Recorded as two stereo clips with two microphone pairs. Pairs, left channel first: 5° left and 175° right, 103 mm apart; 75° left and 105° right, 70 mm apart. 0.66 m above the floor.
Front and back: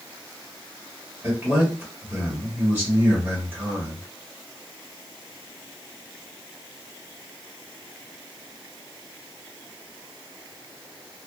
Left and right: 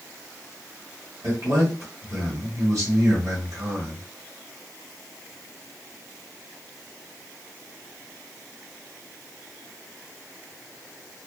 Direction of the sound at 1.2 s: 120° right.